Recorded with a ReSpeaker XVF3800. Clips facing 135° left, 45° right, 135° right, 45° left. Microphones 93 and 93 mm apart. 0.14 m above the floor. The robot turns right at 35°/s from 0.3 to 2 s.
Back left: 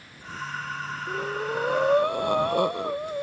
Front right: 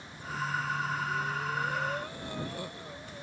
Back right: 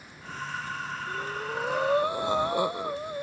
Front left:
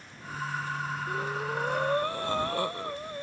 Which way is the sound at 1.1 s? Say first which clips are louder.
Back left 4 dB, front left 1 dB; 120° left.